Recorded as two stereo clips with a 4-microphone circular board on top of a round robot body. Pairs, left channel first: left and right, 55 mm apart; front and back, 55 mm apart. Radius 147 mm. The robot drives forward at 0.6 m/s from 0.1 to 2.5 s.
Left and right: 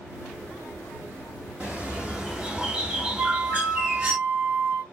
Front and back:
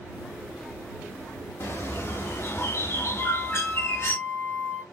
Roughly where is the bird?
Ahead.